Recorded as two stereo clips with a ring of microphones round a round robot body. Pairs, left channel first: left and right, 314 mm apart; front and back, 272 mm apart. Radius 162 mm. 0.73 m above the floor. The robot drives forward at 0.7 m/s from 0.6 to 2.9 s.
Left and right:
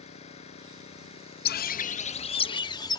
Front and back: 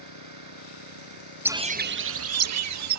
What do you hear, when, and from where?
0.0 s an engine running: 160° left; by 3.0 s 165° left
1.4 s a bird: 100° left; by 3.0 s 170° left